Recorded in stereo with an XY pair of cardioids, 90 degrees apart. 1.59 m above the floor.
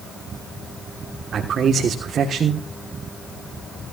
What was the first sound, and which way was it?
A man speaking, 60° right.